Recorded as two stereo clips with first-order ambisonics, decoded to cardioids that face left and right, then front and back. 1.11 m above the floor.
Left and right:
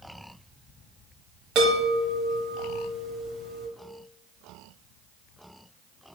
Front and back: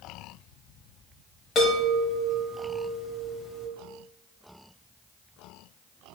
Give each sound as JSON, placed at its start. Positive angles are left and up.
{"t": 1.6, "sound": "a chime", "azimuth_deg": -60, "distance_m": 1.3}